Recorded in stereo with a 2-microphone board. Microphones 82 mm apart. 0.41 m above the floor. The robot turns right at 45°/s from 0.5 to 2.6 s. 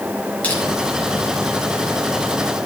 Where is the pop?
I don't hear a pop.